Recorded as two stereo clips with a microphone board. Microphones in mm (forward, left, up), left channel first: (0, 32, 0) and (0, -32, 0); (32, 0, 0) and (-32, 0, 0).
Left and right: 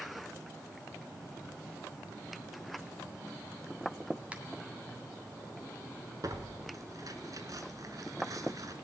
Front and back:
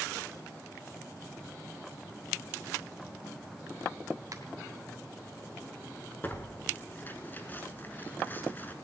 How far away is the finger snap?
About 2.5 m.